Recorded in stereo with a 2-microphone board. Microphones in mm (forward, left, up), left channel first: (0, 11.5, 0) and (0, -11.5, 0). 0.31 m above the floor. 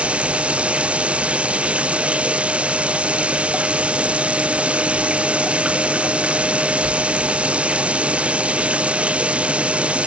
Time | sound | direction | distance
0.0 | running water | 65° right (ahead or behind) | ?